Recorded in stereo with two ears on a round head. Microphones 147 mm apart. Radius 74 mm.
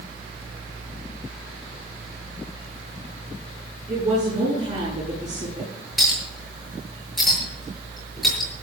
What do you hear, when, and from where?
3.9 s a woman speaking: 45° right (ahead or behind), 9 m
6.0 s a clink: centre (ahead or behind), 8 m